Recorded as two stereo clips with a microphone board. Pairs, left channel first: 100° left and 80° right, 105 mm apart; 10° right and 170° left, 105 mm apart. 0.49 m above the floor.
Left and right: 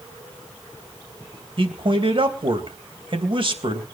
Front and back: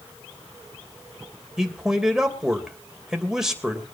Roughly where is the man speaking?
Right.